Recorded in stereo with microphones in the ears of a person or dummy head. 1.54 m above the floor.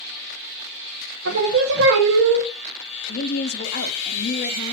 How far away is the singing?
About 1.6 m.